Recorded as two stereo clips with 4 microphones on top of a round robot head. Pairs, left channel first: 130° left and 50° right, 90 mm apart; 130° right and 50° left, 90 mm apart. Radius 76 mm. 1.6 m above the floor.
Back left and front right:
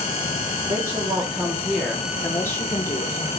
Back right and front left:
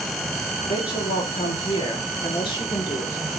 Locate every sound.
0.7 s a woman speaking: 105° right, 2.0 m; by 3.3 s 175° left, 3 m